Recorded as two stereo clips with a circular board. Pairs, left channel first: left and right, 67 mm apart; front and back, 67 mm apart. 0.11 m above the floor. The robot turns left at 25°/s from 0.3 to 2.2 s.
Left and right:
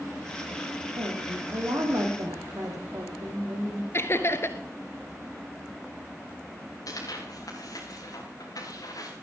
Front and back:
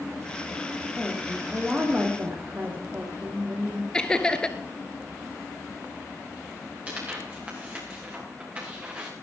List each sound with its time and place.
1.0 s a woman speaking: 90° right, 5 m; by 3.8 s 120° right, 5 m
3.9 s laughter: 70° left, 1.4 m
6.9 s tearing paper: 115° left, 6 m